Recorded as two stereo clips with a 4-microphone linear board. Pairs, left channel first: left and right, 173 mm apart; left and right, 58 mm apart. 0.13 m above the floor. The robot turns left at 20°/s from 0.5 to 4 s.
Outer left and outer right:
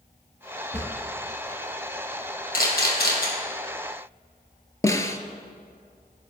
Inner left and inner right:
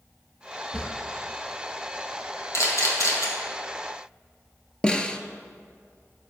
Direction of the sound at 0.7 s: 15° left (ahead or behind).